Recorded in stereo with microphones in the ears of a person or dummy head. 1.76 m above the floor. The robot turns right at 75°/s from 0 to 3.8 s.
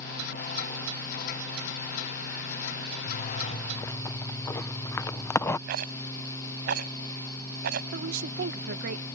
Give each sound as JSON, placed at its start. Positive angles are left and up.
{"t": 3.1, "sound": "a zipper", "azimuth_deg": 105}
{"t": 5.7, "sound": "a rattle", "side_deg": -60}
{"t": 7.9, "sound": "a woman speaking", "side_deg": -60}